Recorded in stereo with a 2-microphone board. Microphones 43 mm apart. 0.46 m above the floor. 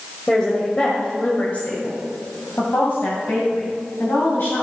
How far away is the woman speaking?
About 1.8 m.